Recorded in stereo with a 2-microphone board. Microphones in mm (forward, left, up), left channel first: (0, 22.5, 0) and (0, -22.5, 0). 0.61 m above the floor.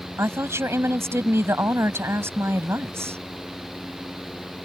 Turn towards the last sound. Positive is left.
turn(degrees=-80)